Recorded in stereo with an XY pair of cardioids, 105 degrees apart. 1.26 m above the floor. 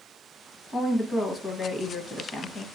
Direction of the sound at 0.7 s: 40° left.